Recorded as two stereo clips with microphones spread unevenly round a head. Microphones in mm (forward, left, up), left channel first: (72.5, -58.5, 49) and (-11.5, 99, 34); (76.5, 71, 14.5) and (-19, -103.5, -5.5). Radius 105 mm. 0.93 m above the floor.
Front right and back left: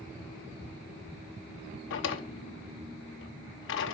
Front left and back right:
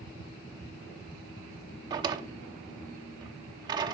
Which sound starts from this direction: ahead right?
A drawer, at 1.9 s.